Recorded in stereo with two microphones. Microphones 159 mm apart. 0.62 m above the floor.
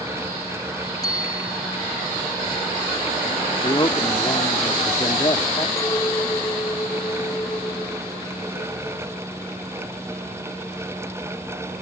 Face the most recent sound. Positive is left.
turn(degrees=20)  # may be behind; listen again after turning